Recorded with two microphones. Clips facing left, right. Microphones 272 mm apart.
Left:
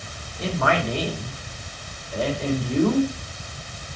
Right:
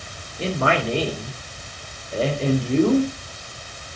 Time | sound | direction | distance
0.4 | a man speaking | 30° right (ahead or behind) | 3 m